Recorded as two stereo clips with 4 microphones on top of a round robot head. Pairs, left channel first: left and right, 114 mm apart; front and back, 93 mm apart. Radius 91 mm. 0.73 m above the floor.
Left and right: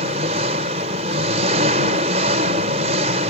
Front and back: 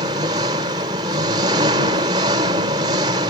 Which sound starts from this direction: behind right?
An engine running, at 0.0 s.